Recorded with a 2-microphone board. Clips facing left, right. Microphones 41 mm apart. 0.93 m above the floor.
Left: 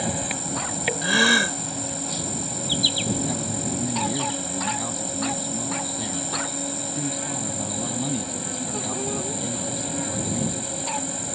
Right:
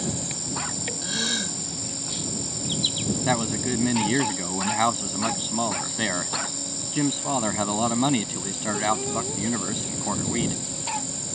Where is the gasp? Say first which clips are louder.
Left 12 dB; 50° left (ahead or behind).